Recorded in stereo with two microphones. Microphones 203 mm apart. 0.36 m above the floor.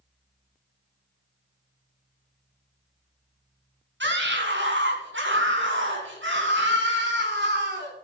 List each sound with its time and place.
4.0 s a scream: 65° right (ahead or behind), 3 m; by 7.9 s 60° right (ahead or behind), 3 m